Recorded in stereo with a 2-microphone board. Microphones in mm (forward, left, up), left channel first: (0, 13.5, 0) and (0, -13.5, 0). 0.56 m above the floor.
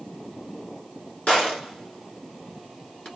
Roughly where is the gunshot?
Left.